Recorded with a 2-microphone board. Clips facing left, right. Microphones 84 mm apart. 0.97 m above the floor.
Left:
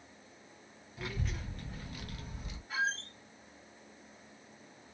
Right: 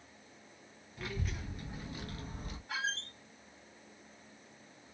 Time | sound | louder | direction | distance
1.0 | a child speaking | left 1 dB | 5° left (ahead or behind) | 1.0 m
2.7 | a squeak | left 4 dB | 80° right | 1.3 m